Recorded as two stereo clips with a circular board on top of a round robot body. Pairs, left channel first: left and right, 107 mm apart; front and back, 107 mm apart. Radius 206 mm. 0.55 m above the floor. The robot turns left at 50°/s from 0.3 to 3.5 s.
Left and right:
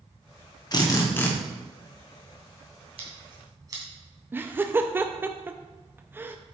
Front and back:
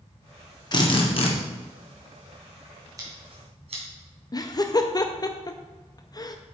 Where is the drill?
45° left, 1.8 m; by 1.3 s 15° left, 1.8 m.